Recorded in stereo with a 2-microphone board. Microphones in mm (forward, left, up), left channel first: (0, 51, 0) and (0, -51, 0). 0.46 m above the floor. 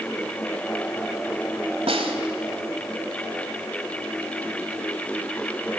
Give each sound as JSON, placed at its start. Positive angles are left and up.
{"t": 1.9, "sound": "a snare drum", "side_deg": -65, "distance_m": 2.0}